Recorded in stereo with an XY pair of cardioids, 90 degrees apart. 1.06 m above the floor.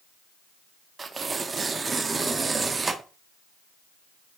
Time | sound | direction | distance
1.0 | tearing paper | 40° right | 1.1 m